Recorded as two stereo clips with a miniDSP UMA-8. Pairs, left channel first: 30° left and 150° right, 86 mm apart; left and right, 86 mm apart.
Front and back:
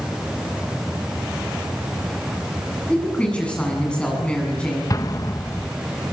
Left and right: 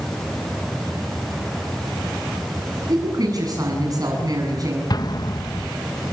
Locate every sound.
2.9 s a woman speaking: 45° right, 7.5 m
4.9 s an explosion: 65° left, 0.9 m